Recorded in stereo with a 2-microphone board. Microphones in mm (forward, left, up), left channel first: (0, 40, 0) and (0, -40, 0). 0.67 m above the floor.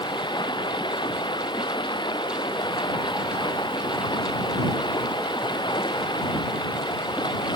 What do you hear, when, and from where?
0.0 s running water: 80° left